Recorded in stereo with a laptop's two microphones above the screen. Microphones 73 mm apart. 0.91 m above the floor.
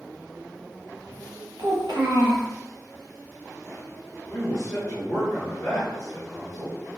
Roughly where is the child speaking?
Right.